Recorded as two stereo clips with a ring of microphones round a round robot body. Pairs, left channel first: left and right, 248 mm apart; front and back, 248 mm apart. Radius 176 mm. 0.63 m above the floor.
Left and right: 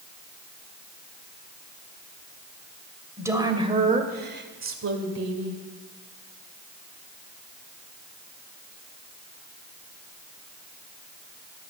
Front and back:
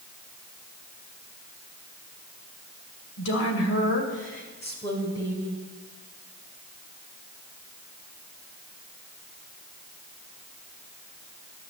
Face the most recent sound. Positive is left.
turn(degrees=-90)